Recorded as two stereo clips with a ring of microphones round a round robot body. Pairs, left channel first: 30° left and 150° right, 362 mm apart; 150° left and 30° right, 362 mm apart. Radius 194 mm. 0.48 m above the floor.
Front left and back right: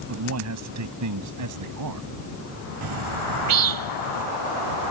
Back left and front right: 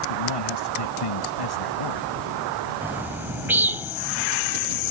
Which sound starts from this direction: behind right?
A bird, at 2.8 s.